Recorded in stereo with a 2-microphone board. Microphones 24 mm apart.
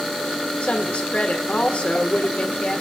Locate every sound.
0.6 s a woman speaking: 60° left (ahead or behind), 1.2 m